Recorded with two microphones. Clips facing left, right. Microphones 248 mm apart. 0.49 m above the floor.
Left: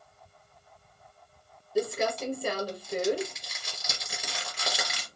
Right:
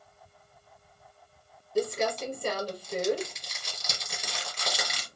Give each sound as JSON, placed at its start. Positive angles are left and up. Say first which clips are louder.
{"t": 1.8, "sound": "crumpling", "louder": "even", "side_deg": 5, "distance_m": 1.9}